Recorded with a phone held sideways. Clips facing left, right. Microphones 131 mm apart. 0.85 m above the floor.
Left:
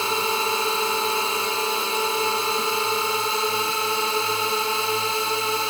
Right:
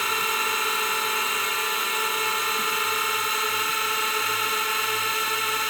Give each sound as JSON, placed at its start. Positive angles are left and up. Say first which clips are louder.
{"t": 0.0, "sound": "a drone", "louder": "left 4 dB", "side_deg": 30}